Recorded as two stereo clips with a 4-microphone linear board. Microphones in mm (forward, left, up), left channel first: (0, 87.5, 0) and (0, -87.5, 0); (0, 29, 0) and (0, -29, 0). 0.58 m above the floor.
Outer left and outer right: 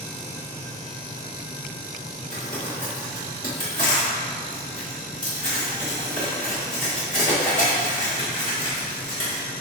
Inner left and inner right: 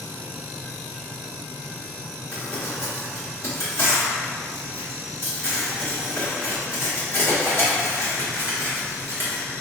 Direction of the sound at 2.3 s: 50° left (ahead or behind).